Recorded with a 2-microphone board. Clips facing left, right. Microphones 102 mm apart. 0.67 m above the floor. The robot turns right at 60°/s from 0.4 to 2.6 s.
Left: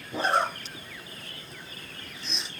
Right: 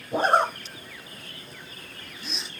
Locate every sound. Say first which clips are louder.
0.1 s a zipper: right 4 dB; 45° right (ahead or behind), 0.8 m; by 2.5 s centre (ahead or behind), 0.8 m